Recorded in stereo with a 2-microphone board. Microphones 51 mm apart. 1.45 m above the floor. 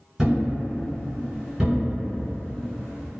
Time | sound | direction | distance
0.2 | a thud | 10° right (ahead or behind) | 1.6 m